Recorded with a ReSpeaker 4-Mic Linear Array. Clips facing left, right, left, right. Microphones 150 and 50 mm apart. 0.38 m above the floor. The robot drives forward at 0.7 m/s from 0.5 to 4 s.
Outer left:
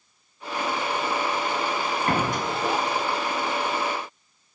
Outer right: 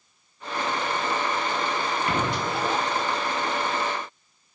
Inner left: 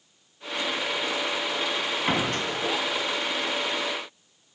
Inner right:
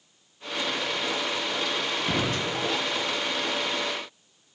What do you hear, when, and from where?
2.1 s a door slam: 45° left (ahead or behind), 2 m; by 2.5 s 50° left (ahead or behind), 1.9 m